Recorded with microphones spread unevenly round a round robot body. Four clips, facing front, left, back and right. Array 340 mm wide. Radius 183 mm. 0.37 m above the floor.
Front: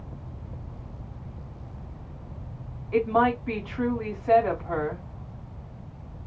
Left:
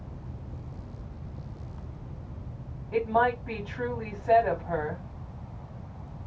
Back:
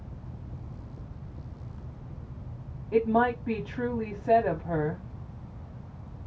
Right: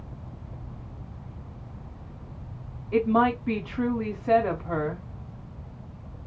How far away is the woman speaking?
About 3 m.